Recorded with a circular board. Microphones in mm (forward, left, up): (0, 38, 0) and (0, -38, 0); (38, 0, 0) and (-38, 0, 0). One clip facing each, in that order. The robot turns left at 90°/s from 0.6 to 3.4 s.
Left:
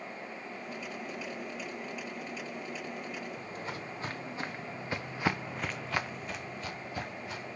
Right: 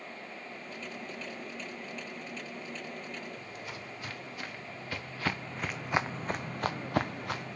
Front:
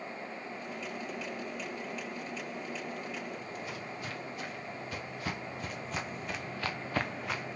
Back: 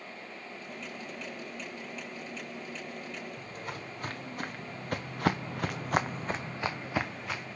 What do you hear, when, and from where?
3.4 s footsteps: 140° left, 1.7 m; by 7.6 s 85° right, 1.0 m